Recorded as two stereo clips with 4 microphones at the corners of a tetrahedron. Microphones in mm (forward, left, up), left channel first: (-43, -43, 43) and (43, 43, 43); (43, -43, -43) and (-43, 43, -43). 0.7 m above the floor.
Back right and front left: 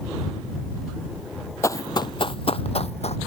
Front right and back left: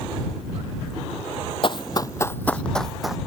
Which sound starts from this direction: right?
Running footsteps, at 1.6 s.